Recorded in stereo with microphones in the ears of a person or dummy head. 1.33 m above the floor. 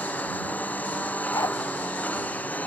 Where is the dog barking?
15° left (ahead or behind).